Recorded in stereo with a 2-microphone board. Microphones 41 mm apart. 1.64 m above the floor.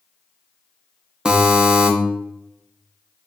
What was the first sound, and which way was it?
A buzzer, 20° right (ahead or behind).